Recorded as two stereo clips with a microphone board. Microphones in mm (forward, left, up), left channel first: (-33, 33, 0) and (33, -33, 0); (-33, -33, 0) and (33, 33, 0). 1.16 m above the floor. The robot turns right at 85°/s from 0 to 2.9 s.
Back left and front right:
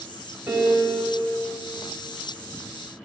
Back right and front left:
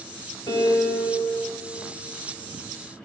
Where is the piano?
115° right, 2.0 m; by 1.2 s 50° right, 2.0 m.